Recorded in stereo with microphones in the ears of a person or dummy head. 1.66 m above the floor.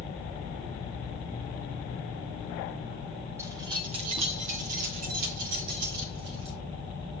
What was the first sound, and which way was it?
Keys jangling, 15° right (ahead or behind).